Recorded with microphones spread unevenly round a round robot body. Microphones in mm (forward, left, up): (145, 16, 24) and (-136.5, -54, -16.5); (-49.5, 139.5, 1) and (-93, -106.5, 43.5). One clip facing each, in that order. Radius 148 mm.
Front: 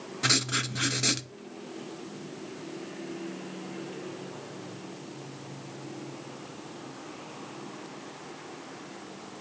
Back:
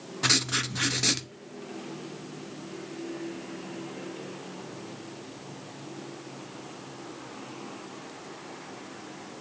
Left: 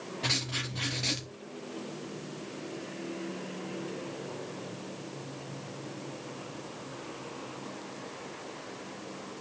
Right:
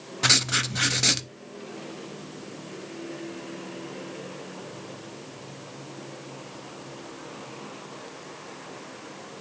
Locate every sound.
0.2 s writing: 75° right, 0.7 m